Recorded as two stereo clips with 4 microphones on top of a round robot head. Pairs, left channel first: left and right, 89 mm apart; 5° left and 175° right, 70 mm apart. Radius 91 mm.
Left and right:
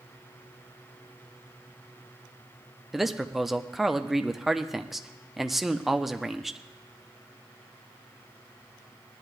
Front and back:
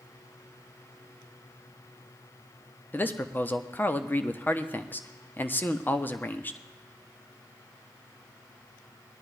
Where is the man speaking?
5° right, 0.9 m.